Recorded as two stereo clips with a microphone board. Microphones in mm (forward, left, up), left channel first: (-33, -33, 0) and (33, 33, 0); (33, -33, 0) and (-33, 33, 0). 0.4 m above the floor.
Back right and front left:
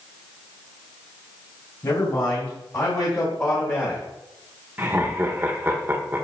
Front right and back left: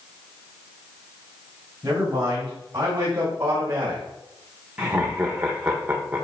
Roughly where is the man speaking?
Behind.